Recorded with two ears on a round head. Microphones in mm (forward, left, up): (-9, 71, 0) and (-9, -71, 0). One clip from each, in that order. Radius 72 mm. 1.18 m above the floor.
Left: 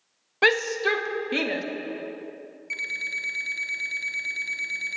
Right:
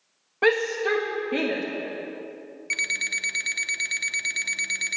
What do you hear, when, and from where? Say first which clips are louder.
0.4 s a shout: left 1 dB; 70° left (ahead or behind), 1.5 m; by 1.6 s 80° left, 2 m
2.7 s an alarm clock: right 3 dB; 30° right (ahead or behind), 0.9 m